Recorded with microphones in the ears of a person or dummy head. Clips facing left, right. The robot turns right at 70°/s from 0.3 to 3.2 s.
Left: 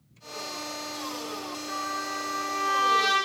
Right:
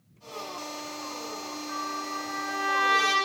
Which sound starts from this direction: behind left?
A trumpet, at 1.7 s.